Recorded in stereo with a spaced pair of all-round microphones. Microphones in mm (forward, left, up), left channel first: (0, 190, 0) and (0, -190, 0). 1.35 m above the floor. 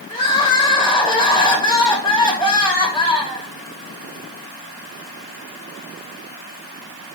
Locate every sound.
0.1 s crying: 15° left (ahead or behind), 1.1 m